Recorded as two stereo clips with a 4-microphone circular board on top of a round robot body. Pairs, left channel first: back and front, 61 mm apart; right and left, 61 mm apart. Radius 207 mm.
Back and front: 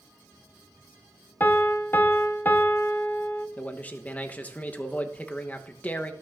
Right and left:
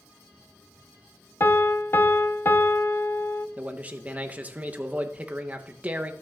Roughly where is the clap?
No clap in this recording.